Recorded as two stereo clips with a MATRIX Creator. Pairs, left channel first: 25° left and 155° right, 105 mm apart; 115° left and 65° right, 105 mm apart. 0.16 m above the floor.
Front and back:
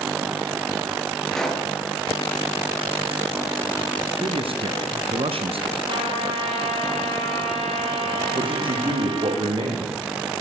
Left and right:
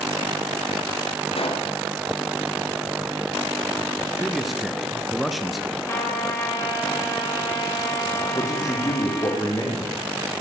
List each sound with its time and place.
1.3 s a pop: 105° left, 3.5 m
4.2 s a man speaking: 155° right, 2 m
5.9 s a trumpet: 175° left, 6 m
8.3 s a man speaking: 170° left, 7 m